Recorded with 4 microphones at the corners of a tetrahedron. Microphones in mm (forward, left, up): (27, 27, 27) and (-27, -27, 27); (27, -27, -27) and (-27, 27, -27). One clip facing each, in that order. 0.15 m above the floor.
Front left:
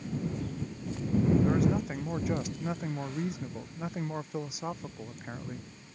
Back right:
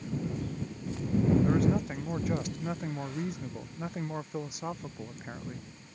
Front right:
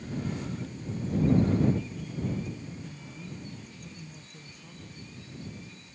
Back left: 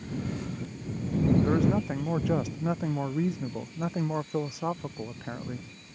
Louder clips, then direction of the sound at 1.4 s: Even, back left 2 dB; 135° left.